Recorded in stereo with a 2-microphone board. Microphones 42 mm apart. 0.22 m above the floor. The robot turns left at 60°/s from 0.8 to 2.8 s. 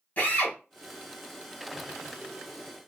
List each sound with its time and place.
0.2 s a drill: 35° left (ahead or behind), 1.4 m